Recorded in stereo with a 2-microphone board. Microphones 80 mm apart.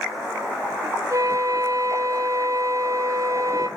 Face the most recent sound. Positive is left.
turn(degrees=-45)  # may be behind; listen again after turning